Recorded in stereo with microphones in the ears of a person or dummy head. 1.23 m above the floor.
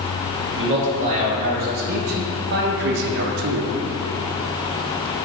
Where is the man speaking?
40° right (ahead or behind), 2.5 m; by 3.8 s 70° right (ahead or behind), 1.2 m.